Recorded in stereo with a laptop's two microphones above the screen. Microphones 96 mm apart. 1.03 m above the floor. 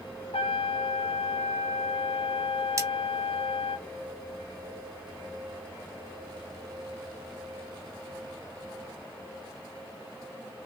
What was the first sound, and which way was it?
A trumpet, 85° left.